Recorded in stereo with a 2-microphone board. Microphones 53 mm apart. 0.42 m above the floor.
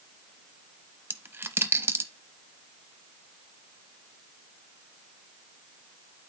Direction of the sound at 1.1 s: 45° right (ahead or behind).